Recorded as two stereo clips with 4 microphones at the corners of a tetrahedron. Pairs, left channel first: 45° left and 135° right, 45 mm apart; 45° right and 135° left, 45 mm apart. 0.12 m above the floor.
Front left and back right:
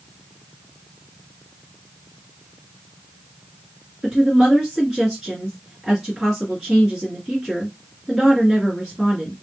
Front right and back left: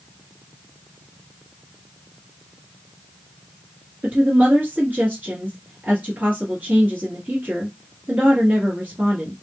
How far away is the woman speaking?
About 2 m.